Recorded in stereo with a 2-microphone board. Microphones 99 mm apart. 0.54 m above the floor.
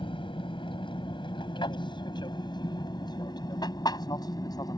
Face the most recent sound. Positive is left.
turn(degrees=40)  # may be behind; listen again after turning